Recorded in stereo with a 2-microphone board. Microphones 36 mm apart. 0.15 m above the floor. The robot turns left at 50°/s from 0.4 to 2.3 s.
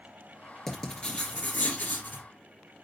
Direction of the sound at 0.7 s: 165° left.